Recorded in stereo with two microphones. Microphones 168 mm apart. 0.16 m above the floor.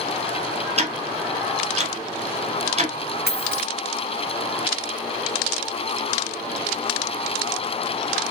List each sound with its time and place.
0.8 s ticking: 40° right (ahead or behind), 1.5 m
3.3 s a dropped coin: 85° right, 1.2 m